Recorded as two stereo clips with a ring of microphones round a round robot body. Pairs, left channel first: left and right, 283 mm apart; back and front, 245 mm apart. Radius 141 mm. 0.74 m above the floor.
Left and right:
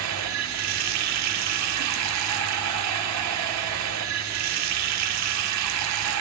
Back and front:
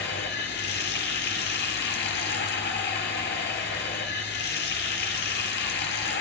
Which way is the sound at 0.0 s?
125° right.